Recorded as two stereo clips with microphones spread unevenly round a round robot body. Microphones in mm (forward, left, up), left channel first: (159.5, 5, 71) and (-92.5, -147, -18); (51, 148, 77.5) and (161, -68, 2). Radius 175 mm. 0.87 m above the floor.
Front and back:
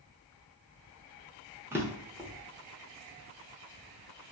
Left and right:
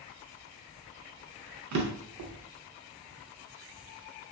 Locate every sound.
1.7 s a drawer: 55° right, 0.7 m